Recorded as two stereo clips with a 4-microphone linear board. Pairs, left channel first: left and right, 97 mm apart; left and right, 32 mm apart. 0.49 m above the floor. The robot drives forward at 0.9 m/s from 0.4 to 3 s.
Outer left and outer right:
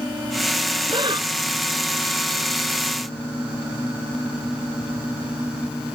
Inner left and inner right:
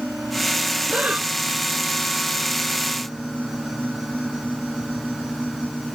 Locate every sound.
0.9 s breathing: 50° right (ahead or behind)